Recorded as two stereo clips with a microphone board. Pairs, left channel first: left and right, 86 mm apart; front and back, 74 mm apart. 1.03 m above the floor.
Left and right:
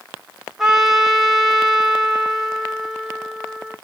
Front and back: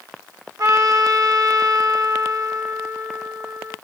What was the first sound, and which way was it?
A trumpet, 175° right.